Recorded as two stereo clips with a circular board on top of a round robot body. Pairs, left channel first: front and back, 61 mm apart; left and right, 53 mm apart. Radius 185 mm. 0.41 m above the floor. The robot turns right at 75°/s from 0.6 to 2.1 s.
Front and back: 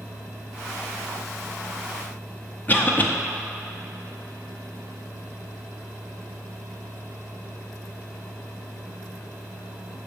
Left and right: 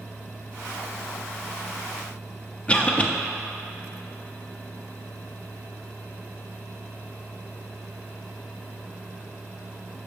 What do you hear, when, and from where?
2.7 s a cough: 35° left, 0.9 m